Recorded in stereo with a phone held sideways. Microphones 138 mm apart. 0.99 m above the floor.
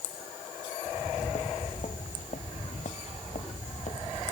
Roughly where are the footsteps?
Left.